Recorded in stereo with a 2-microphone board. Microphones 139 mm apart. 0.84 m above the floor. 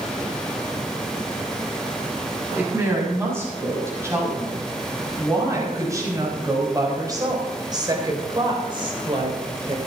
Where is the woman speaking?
20° right (ahead or behind), 7 m; by 9.8 s 45° right (ahead or behind), 3 m.